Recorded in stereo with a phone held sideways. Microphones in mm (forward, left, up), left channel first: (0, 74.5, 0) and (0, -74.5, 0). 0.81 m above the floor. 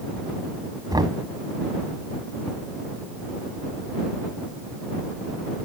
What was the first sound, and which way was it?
Knocking, 30° right (ahead or behind).